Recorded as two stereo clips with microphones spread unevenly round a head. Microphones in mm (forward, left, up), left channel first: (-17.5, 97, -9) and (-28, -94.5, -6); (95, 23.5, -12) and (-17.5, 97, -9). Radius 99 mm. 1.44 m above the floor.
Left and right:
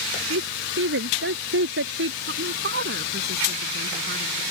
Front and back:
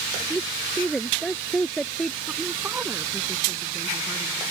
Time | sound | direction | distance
0.3 | a woman speaking | 125° right | ?
2.3 | a woman speaking | 130° right | ?